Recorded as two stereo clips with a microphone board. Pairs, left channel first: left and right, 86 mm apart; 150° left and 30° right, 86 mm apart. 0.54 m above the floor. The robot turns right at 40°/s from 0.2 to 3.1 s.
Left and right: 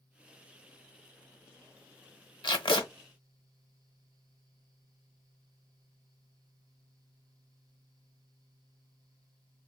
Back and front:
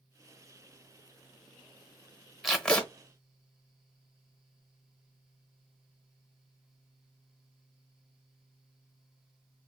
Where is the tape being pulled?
60° left, 1.0 m; by 2.9 s 75° left, 1.0 m.